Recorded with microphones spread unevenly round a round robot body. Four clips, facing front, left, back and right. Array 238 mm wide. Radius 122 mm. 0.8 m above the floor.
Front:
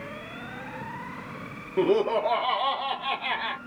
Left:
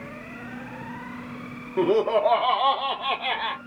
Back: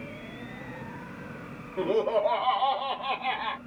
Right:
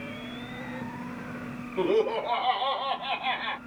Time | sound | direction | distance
1.8 | laughter | 45° left | 1.5 m